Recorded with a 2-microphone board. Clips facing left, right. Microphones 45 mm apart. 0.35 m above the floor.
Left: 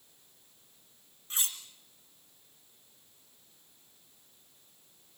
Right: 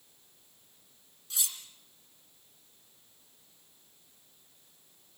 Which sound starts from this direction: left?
Cutlery clinking, at 1.3 s.